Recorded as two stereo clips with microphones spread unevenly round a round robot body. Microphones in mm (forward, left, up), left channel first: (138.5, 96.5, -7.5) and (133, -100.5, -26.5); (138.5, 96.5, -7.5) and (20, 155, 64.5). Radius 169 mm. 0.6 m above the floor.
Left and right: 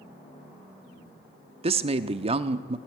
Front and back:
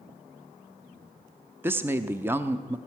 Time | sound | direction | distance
1.6 | a woman speaking | 95° right | 0.6 m